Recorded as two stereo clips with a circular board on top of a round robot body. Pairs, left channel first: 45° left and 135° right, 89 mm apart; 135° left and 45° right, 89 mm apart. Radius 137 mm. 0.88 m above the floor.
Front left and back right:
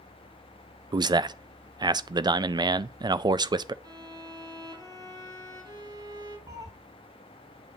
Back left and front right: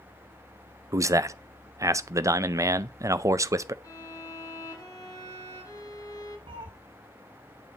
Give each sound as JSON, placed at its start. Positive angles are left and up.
{"t": 0.9, "sound": "a man speaking", "azimuth_deg": -100, "distance_m": 0.6}
{"t": 3.8, "sound": "a violin", "azimuth_deg": 180, "distance_m": 2.0}
{"t": 6.5, "sound": "a cat meowing", "azimuth_deg": -80, "distance_m": 1.1}